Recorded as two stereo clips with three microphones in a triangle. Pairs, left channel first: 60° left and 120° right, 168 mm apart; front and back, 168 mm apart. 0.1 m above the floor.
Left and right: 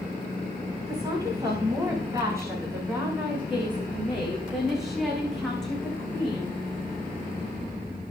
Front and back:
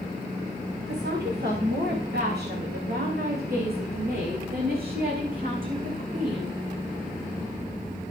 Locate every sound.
0.9 s a woman speaking: 175° left, 8 m; by 6.6 s 140° left, 6 m